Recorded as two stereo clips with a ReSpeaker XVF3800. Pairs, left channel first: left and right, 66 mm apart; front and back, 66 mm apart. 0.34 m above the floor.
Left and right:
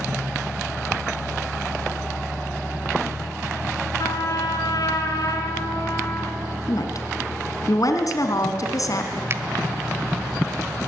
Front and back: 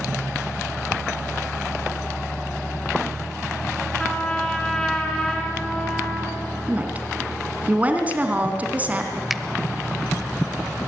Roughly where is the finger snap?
Right.